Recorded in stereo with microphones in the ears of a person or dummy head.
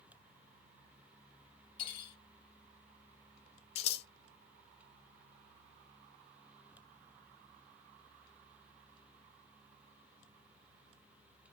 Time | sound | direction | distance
1.8 | cutlery clinking | 35° left (ahead or behind) | 1.6 m
3.8 | scissors | 40° left (ahead or behind) | 0.9 m